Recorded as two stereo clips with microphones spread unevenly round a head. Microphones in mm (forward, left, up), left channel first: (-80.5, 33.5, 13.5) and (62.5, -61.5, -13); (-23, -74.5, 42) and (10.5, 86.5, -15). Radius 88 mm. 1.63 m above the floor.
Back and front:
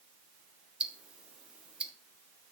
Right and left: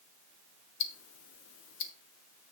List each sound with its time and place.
0.8 s ticking: 115° right, 1.0 m